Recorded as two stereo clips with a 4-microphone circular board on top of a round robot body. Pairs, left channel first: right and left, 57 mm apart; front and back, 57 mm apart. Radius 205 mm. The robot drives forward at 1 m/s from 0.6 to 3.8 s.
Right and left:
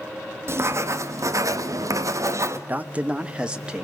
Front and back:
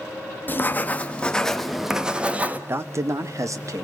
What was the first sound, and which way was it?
Writing, 55° left.